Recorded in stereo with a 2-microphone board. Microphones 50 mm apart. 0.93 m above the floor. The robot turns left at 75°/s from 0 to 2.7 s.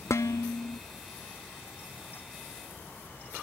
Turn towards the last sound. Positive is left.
turn(degrees=-90)